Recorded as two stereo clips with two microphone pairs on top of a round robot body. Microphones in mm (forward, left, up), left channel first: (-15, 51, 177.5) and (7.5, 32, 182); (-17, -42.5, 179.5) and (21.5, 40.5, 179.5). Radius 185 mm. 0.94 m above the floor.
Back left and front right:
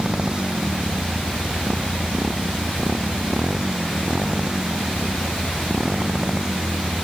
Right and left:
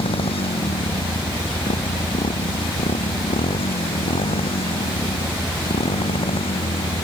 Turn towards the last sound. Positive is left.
turn(degrees=-110)